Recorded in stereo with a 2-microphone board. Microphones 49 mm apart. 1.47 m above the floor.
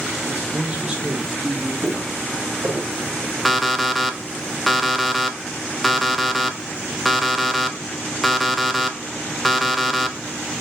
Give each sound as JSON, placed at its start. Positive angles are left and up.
{"t": 0.3, "sound": "a man speaking", "side_deg": -40, "distance_m": 2.0}
{"t": 1.8, "sound": "footsteps", "side_deg": -30, "distance_m": 2.5}
{"t": 3.5, "sound": "an alarm clock", "side_deg": 0, "distance_m": 0.6}